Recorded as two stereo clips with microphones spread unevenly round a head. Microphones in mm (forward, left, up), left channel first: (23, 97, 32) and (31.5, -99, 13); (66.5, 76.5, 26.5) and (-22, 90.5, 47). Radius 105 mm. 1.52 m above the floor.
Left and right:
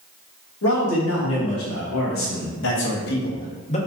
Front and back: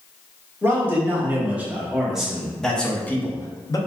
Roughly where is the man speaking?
Left.